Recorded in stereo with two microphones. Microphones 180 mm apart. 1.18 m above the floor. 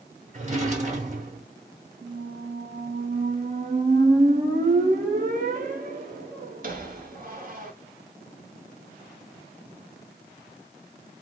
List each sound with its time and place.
0.3 s a drawer: 40° right (ahead or behind), 0.9 m
2.0 s a squeak: 50° right (ahead or behind), 0.8 m